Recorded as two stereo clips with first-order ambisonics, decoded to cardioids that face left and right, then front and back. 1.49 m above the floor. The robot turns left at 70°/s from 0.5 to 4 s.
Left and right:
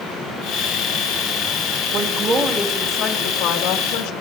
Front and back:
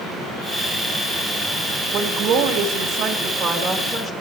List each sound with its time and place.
1.9 s a woman speaking: 115° right, 2 m; by 4.1 s 95° left, 2 m